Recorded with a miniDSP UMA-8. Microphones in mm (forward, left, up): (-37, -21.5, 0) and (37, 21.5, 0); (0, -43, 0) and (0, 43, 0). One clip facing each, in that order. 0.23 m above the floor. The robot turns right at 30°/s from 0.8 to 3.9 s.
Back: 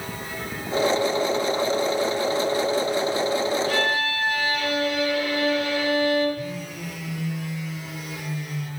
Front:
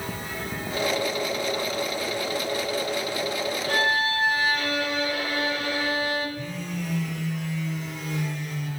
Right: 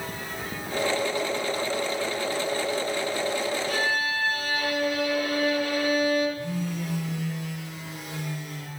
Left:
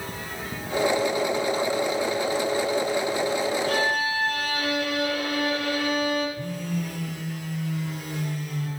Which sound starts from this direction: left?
A violin, at 3.7 s.